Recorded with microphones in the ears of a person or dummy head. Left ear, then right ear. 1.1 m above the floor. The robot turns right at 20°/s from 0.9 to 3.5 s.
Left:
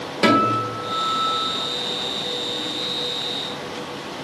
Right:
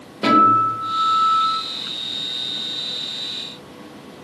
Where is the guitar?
65° left (ahead or behind), 4 m; by 1.6 s 80° left, 4 m.